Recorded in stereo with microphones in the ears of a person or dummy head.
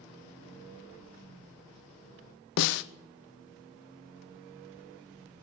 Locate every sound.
2.6 s a snare drum: 60° left (ahead or behind), 0.6 m